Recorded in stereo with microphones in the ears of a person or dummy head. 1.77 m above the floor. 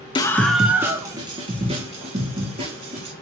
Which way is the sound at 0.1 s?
20° left (ahead or behind).